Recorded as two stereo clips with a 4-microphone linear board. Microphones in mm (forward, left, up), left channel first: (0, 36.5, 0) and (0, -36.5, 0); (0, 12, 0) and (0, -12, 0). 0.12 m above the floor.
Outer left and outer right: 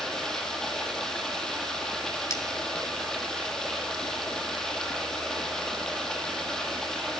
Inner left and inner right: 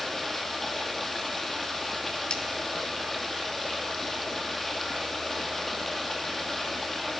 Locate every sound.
0.0 s running water: 5° left (ahead or behind), 1.9 m
2.3 s cutlery clinking: 40° left (ahead or behind), 1.2 m